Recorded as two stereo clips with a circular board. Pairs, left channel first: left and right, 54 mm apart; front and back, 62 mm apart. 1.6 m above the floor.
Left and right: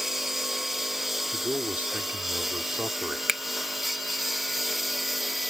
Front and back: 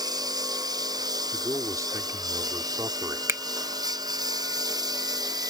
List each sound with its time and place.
0.0 s a lawn mower: 175° right; by 5.5 s straight behind
1.3 s a man speaking: 145° right
3.3 s a finger snap: 170° right